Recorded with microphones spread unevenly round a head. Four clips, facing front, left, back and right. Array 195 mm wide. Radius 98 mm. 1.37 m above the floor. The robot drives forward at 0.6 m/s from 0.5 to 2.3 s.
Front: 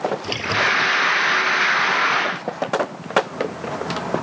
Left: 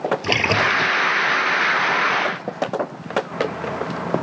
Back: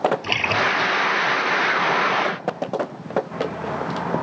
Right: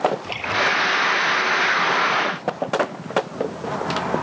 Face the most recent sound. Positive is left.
turn(degrees=95)